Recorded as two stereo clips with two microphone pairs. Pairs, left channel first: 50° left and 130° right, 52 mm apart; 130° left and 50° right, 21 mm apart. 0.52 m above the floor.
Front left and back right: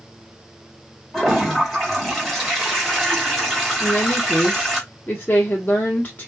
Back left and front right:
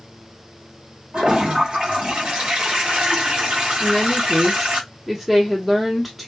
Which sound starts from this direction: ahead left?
A woman speaking, at 3.8 s.